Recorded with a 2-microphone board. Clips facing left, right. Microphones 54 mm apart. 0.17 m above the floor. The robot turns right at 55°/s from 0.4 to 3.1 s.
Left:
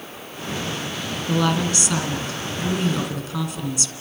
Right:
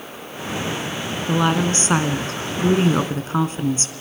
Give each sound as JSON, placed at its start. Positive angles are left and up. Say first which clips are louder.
{"t": 1.3, "sound": "a woman speaking", "louder": "right 2 dB", "azimuth_deg": -155, "distance_m": 1.8}